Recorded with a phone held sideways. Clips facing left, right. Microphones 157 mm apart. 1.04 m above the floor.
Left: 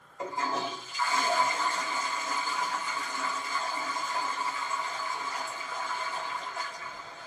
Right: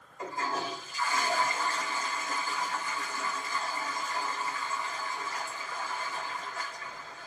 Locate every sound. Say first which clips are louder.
0.2 s a toilet flushing: left 2 dB; 25° left (ahead or behind), 1.6 m